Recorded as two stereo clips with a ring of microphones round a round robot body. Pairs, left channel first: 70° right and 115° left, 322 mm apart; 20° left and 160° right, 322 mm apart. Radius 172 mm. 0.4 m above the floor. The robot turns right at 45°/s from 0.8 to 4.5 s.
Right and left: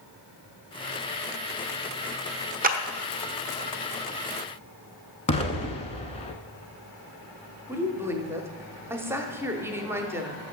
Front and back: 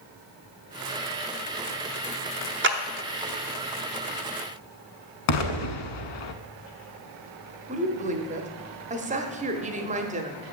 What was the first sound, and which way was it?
A clap, 165° left.